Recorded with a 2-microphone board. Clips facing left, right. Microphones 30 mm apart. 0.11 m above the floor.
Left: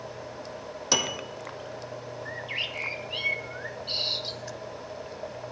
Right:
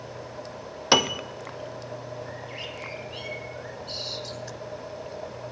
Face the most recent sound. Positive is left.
turn(degrees=40)  # may be behind; listen again after turning